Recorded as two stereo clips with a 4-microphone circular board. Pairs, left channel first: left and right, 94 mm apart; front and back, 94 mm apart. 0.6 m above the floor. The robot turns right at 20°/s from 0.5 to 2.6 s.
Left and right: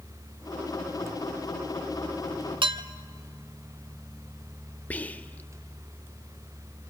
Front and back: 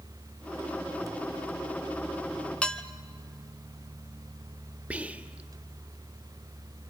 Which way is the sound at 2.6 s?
75° right.